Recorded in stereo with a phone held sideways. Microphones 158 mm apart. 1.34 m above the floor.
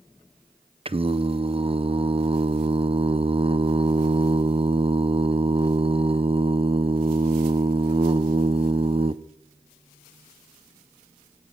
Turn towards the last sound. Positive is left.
turn(degrees=-35)  # may be behind; listen again after turning